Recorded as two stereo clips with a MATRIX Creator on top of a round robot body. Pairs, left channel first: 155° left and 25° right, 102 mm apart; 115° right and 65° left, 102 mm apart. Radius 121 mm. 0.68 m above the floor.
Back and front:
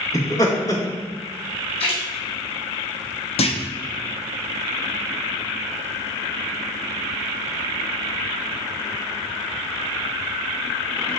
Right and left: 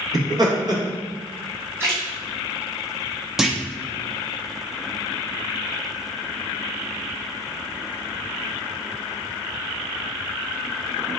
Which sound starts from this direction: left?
Laughter, at 0.1 s.